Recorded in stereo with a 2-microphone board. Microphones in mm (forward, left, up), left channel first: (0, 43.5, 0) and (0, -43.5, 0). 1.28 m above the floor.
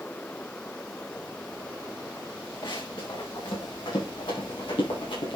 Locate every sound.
2.6 s running footsteps: 65° left (ahead or behind), 6.5 m; by 5.4 s 75° left (ahead or behind), 6.5 m